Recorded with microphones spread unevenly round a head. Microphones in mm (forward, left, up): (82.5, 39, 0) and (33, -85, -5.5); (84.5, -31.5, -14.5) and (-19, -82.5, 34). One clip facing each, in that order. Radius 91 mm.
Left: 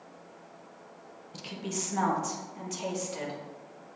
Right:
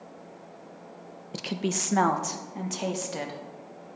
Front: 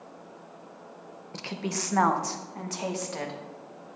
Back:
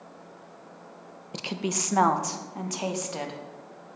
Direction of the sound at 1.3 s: 105° right.